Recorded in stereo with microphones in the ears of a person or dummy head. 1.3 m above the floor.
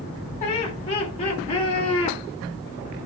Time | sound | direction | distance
0.4 | laughter | 35° left (ahead or behind) | 4.5 m